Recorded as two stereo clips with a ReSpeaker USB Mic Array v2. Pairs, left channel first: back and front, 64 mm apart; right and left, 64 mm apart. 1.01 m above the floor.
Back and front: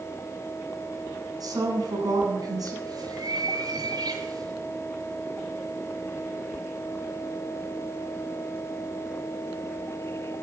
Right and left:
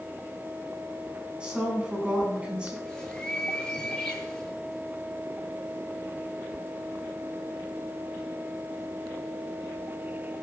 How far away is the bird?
About 7 m.